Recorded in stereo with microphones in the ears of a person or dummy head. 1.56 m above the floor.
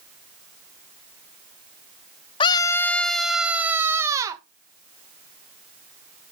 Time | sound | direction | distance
2.4 | a scream | 25° left (ahead or behind) | 0.9 m